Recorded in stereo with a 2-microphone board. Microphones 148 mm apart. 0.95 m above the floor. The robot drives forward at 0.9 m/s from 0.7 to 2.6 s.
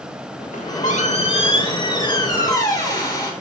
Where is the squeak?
60° left (ahead or behind), 1.2 m; by 3.3 s 25° left (ahead or behind), 2.5 m.